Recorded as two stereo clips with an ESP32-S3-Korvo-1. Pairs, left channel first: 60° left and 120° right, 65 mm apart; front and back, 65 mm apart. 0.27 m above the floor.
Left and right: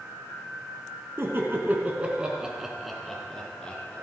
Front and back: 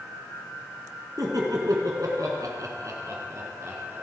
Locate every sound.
1.2 s laughter: 165° right, 3 m; by 4.0 s 130° left, 4 m